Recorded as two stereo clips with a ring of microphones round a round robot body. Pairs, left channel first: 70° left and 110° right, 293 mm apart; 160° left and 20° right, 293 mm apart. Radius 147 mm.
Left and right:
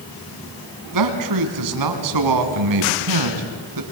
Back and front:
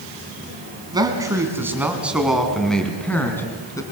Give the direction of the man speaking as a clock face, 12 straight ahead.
3 o'clock.